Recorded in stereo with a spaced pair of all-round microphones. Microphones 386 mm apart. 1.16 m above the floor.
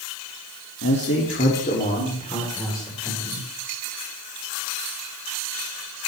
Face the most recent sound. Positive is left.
turn(degrees=5)  # may be behind; listen again after turning